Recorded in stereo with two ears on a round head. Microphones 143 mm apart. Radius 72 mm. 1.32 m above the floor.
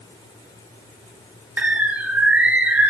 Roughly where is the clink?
I don't hear a clink.